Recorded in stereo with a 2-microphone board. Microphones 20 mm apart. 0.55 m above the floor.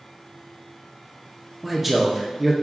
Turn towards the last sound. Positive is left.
turn(degrees=-5)  # may be behind; listen again after turning